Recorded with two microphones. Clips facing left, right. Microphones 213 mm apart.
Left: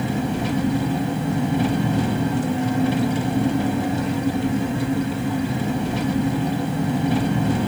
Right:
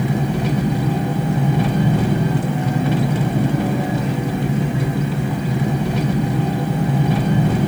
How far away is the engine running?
About 1.3 m.